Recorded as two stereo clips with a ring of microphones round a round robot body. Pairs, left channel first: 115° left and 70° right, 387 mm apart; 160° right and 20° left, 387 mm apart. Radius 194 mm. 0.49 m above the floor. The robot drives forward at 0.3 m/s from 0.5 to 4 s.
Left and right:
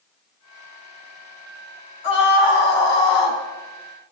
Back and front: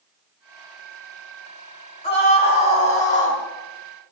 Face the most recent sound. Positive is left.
turn(degrees=135)